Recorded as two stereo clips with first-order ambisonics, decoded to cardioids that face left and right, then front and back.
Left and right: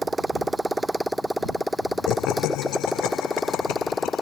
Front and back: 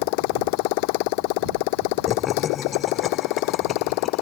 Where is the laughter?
60° left.